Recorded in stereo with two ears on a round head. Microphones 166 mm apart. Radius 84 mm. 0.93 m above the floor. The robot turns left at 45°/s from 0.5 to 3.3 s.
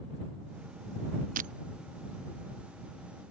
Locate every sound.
1.4 s breaking glass: 50° right (ahead or behind); by 1.5 s 45° right (ahead or behind)